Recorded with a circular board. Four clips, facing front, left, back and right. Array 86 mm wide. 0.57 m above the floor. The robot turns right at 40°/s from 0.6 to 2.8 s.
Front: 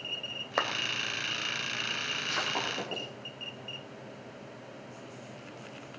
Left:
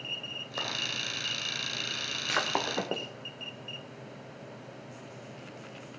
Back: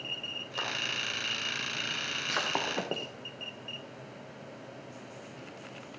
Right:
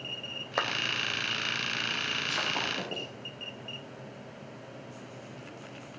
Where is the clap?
35° right, 2.0 m.